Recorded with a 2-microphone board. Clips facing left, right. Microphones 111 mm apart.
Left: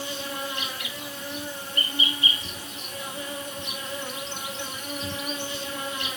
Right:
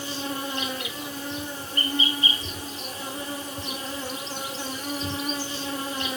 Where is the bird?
No bird in this recording.